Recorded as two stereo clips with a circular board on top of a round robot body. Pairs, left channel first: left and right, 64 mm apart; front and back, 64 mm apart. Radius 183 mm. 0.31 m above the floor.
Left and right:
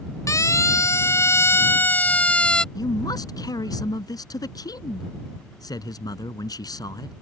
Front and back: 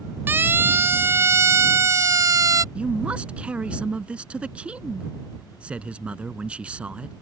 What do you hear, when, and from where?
0.3 s a siren: 125° left; by 2.6 s 165° left
2.8 s a man speaking: 110° left